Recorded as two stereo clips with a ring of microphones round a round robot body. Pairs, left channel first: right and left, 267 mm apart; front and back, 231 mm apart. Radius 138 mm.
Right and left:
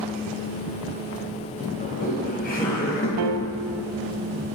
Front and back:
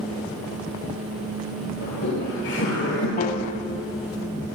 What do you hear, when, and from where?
1.8 s laughter: 35° right, 2 m
3.2 s a piano: 60° left, 0.6 m